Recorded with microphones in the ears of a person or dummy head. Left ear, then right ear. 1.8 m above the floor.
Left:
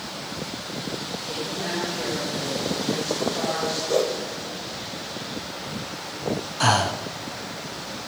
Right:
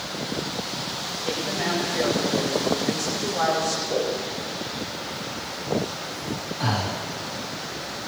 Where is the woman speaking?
60° right (ahead or behind), 9.5 m.